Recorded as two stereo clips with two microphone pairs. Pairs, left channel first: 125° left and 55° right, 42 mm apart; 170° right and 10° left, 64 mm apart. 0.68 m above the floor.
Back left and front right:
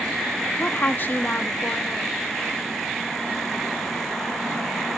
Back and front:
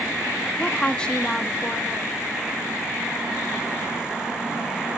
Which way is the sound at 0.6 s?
120° left.